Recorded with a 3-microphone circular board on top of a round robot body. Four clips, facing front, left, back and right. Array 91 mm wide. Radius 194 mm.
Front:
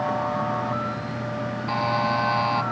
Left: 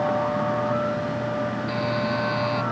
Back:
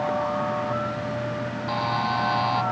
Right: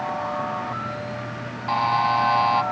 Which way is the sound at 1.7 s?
80° right.